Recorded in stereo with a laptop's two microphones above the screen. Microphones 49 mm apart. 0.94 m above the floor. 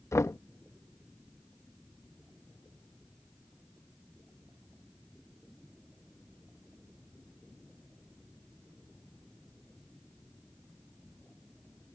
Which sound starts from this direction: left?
Knocking, at 0.1 s.